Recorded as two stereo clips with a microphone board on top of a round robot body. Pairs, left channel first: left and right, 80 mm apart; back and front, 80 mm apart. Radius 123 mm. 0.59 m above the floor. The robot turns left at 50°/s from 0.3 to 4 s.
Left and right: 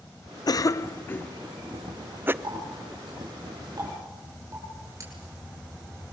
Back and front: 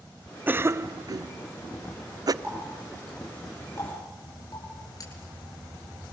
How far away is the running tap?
About 9 m.